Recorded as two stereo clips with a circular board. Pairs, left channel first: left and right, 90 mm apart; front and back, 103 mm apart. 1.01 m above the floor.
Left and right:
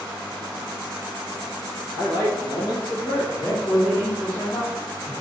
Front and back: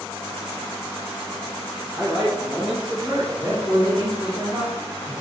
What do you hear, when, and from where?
1.9 s a man speaking: 105° left, 1.1 m
3.4 s a man speaking: 135° left, 1.4 m